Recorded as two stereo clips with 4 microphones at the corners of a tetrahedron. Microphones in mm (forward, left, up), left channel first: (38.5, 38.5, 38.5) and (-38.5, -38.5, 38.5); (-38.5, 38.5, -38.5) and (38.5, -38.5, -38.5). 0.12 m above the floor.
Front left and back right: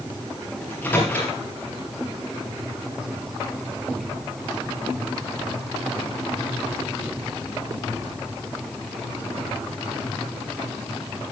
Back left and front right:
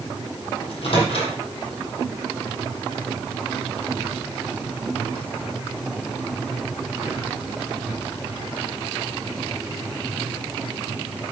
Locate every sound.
0.6 s a microwave: 120° left, 3.5 m